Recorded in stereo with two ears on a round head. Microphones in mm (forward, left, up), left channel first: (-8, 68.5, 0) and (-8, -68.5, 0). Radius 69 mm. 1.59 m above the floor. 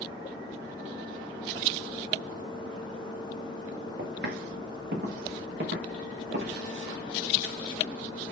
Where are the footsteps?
65° right (ahead or behind), 6.5 m; by 6.6 s 55° right (ahead or behind), 9 m.